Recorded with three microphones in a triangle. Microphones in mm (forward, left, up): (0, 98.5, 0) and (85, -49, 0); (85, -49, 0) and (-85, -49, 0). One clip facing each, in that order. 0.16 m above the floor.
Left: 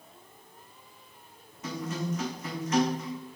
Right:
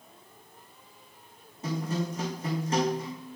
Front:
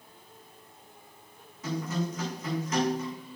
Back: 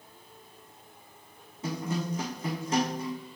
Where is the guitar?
120° right, 3.5 m.